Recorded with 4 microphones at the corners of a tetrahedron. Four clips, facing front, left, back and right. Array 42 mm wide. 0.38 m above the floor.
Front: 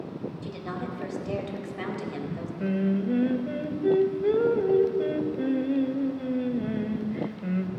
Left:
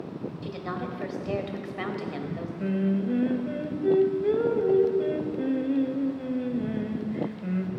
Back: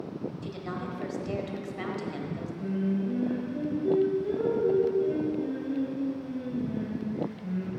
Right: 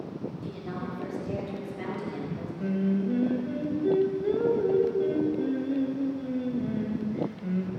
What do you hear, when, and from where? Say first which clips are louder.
0.4 s a woman speaking: left 2 dB, front 1 dB; 85° left, 1.7 m
2.6 s singing: left 1 dB, front 3 dB; 20° left, 0.9 m